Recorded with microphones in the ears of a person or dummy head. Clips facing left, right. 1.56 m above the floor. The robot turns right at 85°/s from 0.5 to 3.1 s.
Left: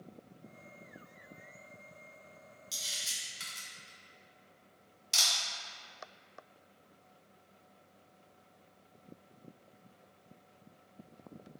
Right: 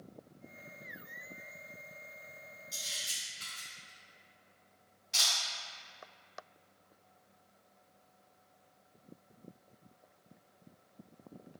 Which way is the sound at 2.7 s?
40° left (ahead or behind).